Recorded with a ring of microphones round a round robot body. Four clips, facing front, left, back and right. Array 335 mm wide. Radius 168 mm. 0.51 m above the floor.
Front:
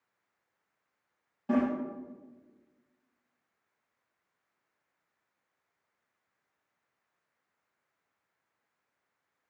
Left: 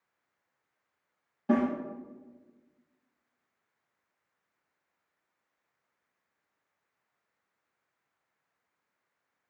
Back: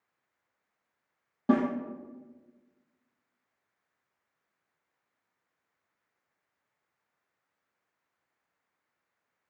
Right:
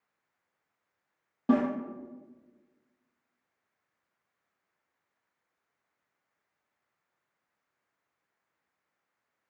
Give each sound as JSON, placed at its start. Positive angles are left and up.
{"t": 1.5, "sound": "a snare drum", "azimuth_deg": -140, "distance_m": 4.5}